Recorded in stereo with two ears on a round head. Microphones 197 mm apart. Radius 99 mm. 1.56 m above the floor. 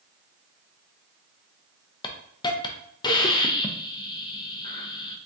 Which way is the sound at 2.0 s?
20° left (ahead or behind).